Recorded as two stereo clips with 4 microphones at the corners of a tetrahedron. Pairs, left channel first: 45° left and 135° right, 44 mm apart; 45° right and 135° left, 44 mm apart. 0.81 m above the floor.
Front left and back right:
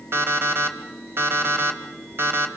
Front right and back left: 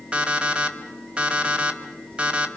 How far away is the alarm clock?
About 2.5 m.